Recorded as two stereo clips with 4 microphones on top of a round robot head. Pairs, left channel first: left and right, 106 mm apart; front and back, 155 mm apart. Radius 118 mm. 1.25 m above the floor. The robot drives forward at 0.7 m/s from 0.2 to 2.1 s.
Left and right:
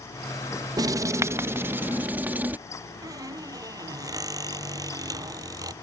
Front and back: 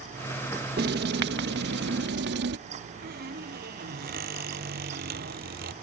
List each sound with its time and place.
0.8 s writing: 145° right; by 2.6 s 165° right
3.0 s a squeak: 145° right